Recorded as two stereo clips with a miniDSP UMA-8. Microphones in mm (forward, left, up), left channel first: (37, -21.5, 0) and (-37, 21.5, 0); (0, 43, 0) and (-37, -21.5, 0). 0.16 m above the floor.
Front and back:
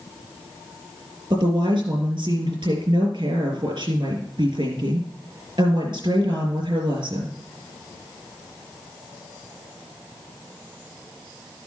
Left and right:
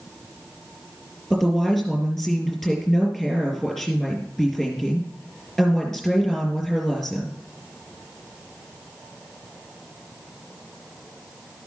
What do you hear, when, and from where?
1.3 s a woman speaking: 145° left, 3.5 m